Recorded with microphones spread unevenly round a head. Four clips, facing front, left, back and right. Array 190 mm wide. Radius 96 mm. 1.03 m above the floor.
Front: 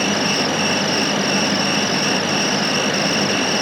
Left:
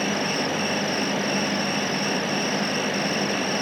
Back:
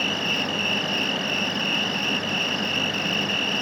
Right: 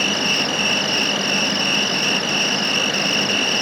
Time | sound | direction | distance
0.0 | an insect | 80° right | 1.1 m